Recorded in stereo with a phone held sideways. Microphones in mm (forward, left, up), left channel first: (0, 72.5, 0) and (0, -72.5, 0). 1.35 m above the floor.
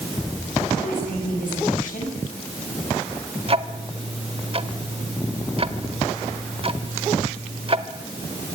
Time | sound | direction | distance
0.8 | a woman speaking | 70° left (ahead or behind) | 7.5 m
3.5 | ticking | 40° right (ahead or behind) | 1.3 m